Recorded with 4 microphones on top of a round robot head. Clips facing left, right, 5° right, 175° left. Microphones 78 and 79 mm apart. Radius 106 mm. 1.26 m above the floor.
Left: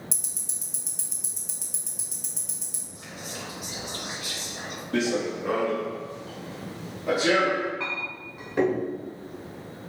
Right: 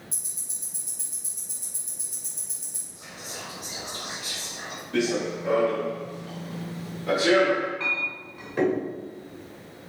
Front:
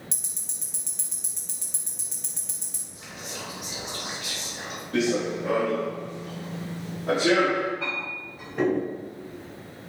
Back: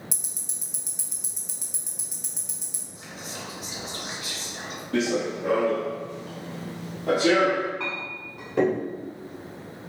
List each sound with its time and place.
0.1 s ticking: 100° left, 1.0 m
3.0 s whispering: 120° left, 2 m
4.9 s running footsteps: 125° left, 2 m; by 7.7 s 170° right, 1.4 m
7.8 s a clink: 165° left, 1.5 m